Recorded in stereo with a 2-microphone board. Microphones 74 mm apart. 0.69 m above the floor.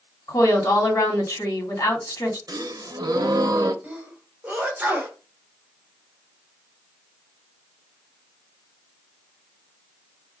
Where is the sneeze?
25° right (ahead or behind), 0.8 m.